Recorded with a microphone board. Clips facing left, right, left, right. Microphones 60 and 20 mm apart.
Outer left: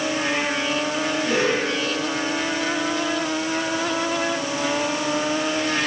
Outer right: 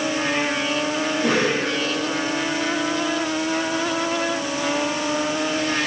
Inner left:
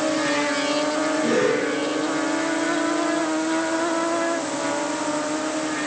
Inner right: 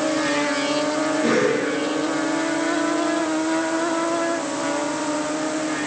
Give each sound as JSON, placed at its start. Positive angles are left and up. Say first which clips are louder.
{"t": 1.2, "sound": "a cough", "louder": "outer right 1 dB, inner right 1 dB", "side_deg": -75, "distance_m": 7.5}